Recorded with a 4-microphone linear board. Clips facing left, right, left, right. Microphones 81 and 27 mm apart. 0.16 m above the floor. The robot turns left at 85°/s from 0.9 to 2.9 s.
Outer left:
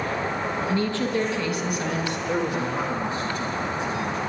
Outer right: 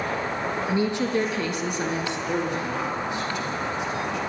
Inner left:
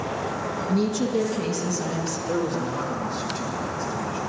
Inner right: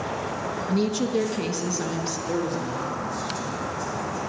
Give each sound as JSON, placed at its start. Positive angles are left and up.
{"t": 0.7, "sound": "a woman speaking", "azimuth_deg": -30, "distance_m": 1.1}
{"t": 2.3, "sound": "a man speaking", "azimuth_deg": -165, "distance_m": 3.0}